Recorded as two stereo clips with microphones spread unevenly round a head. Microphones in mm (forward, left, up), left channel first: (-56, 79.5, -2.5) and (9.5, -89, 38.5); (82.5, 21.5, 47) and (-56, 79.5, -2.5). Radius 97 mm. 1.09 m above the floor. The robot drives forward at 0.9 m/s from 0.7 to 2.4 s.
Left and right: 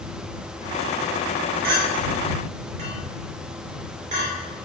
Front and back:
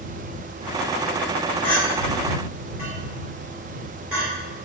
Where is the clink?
100° right, 2 m; by 4.3 s 120° right, 2 m.